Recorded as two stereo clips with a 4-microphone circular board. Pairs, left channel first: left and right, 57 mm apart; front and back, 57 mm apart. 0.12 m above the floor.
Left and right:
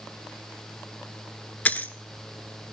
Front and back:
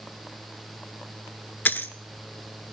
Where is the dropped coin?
40° left, 0.6 m.